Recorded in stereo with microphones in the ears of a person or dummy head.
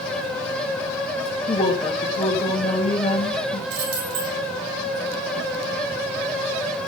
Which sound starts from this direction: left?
A woman speaking, at 1.5 s.